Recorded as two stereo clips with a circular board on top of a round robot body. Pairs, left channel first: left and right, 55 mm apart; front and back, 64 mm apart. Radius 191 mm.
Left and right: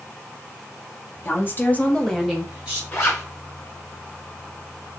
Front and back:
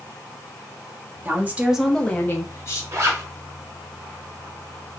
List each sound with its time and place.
1.2 s a woman speaking: 130° left, 1.5 m; by 2.8 s 25° right, 1.6 m
2.9 s a zipper: 140° left, 2.5 m